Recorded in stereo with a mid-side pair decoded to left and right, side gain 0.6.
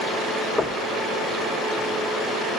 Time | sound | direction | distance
0.6 | knocking | 20° left | 1.3 m